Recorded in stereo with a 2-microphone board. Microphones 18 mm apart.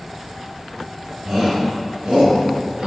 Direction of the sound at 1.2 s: 50° right (ahead or behind).